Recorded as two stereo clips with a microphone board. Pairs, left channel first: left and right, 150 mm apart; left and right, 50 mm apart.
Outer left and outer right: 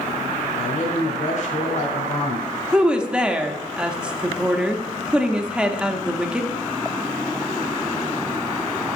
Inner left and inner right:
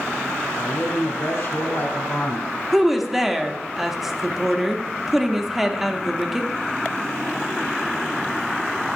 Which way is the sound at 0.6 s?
50° left (ahead or behind).